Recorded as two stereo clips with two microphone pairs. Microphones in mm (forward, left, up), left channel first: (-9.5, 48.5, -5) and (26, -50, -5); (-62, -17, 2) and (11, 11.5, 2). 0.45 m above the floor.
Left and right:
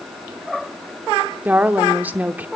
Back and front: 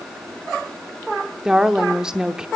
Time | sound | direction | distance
1.4 | a woman speaking | 45° right | 0.7 m